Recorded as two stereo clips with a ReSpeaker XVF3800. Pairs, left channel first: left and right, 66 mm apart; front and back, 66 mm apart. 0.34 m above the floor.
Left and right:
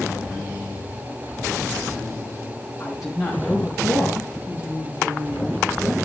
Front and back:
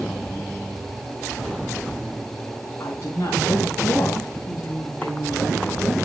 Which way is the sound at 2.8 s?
10° left.